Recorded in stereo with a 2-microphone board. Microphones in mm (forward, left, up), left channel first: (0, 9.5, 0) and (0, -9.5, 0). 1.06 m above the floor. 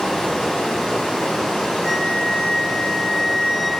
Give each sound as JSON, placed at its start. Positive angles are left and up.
{"t": 0.0, "sound": "running water", "side_deg": 70, "distance_m": 2.5}
{"t": 1.8, "sound": "a flute", "side_deg": 35, "distance_m": 2.5}